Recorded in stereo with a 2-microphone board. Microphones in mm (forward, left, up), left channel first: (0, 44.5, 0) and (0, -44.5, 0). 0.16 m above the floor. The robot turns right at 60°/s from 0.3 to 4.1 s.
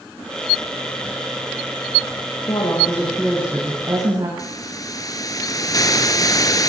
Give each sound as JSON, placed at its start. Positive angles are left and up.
{"t": 2.4, "sound": "a woman speaking", "azimuth_deg": 125, "distance_m": 7.5}
{"t": 4.4, "sound": "a hiss", "side_deg": 40, "distance_m": 1.9}